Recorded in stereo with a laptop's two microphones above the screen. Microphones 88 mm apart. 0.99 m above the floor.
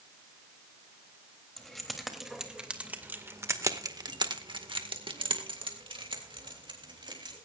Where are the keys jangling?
5° left (ahead or behind), 3.5 m; by 7.3 s 60° right (ahead or behind), 4 m.